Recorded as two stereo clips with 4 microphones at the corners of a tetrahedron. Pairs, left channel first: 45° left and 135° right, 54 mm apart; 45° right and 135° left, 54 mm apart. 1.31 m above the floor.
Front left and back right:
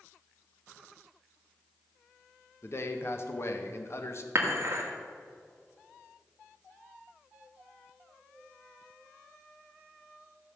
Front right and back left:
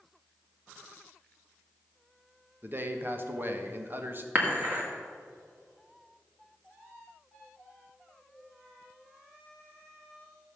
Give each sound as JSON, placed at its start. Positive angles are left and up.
{"t": 2.6, "sound": "a man speaking", "azimuth_deg": 85, "distance_m": 1.2}
{"t": 4.3, "sound": "dishes clattering", "azimuth_deg": -175, "distance_m": 2.0}